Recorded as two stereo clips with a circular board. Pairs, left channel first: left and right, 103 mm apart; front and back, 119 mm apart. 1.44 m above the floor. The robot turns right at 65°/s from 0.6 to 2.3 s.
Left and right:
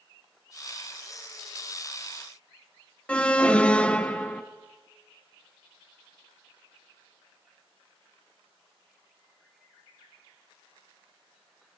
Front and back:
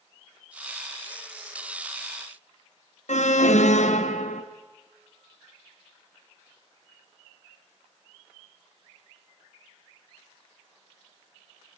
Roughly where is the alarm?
Ahead.